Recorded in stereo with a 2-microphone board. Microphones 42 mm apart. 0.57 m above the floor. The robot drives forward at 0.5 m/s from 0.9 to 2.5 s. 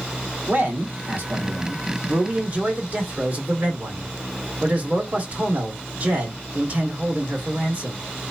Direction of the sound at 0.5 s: 55° right (ahead or behind).